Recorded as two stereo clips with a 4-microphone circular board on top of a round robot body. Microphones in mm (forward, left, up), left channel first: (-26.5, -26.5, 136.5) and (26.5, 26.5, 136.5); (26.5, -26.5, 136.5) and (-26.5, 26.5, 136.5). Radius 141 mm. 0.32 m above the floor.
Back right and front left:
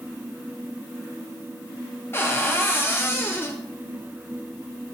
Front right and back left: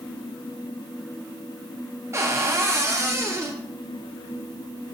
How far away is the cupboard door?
About 1.2 m.